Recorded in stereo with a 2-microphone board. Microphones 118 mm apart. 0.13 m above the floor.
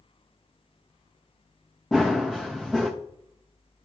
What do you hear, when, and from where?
1.9 s running footsteps: centre (ahead or behind), 0.9 m